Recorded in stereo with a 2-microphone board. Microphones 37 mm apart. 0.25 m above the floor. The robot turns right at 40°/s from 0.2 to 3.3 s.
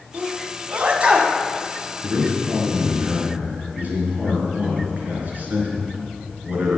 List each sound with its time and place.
0.1 s a sneeze: 45° right (ahead or behind), 1.5 m; by 1.4 s 25° right (ahead or behind), 1.5 m
2.0 s a man speaking: 105° right, 3.5 m; by 6.8 s 55° right, 3.5 m